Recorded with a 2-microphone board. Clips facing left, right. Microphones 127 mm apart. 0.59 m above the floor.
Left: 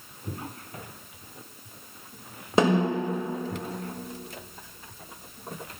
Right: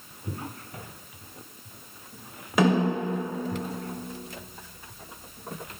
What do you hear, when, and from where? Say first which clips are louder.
2.6 s a snare drum: even; 30° left (ahead or behind), 3 m